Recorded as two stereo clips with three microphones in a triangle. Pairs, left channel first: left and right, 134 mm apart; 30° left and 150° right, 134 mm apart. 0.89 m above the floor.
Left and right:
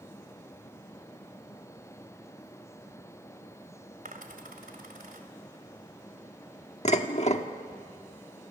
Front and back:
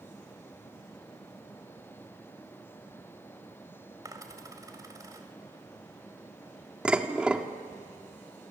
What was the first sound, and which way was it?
A dropped coin, 85° right.